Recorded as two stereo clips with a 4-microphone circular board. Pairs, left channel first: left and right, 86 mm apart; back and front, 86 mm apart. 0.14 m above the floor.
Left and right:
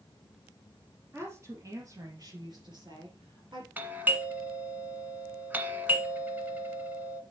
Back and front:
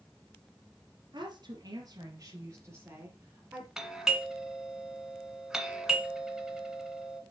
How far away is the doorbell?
About 1.6 m.